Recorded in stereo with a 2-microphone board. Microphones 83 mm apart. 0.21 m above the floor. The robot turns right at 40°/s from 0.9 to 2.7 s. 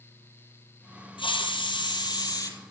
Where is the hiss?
80° left, 2.5 m; by 2.5 s 135° left, 2.5 m.